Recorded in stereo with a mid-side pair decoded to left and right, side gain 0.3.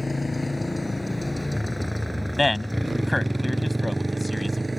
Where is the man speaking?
25° left.